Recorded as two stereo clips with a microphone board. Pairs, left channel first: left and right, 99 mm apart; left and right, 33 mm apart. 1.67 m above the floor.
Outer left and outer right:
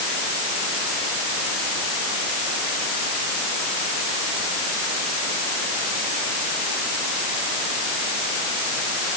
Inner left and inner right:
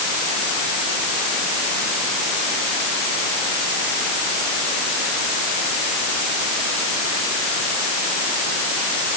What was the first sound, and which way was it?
Only background noise.